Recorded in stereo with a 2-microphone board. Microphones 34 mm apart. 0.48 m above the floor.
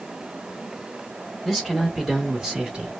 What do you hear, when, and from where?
1.4 s a man speaking: centre (ahead or behind), 1.8 m; by 2.9 s 30° right (ahead or behind), 1.7 m